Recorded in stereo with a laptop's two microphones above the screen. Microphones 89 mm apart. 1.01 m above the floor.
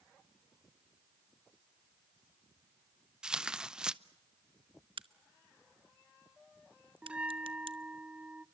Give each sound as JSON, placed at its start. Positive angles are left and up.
{"t": 3.2, "sound": "tearing paper", "side_deg": -5, "distance_m": 0.7}
{"t": 5.0, "sound": "a crack", "side_deg": -75, "distance_m": 0.8}
{"t": 7.0, "sound": "a bell", "side_deg": -10, "distance_m": 0.6}